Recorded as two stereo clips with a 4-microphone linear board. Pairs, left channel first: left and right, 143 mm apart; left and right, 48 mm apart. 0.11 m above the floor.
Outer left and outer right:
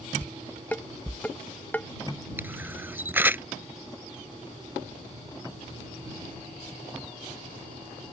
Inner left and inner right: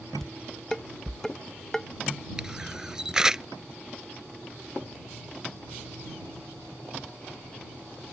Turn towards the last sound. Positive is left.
turn(degrees=-15)  # may be behind; listen again after turning